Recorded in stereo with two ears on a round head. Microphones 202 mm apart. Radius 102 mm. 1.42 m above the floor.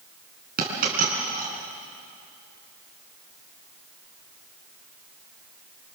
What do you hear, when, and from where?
0.6 s a dropped coin: 40° right (ahead or behind), 5 m